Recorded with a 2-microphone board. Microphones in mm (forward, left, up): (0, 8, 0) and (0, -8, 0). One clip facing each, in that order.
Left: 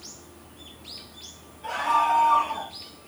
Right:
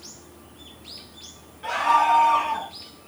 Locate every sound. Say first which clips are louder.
1.6 s a scream: right 3 dB; 85° right, 9 m